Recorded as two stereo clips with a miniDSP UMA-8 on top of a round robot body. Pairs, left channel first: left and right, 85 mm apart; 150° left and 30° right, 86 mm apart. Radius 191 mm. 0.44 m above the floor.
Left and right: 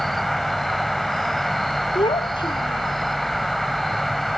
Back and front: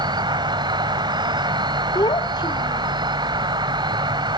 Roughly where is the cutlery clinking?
I don't hear cutlery clinking.